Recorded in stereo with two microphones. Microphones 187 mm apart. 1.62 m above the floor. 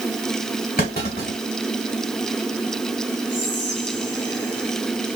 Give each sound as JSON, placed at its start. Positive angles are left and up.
{"t": 0.8, "sound": "a clunk", "side_deg": 55, "distance_m": 2.5}
{"t": 3.3, "sound": "whispering", "side_deg": 75, "distance_m": 0.6}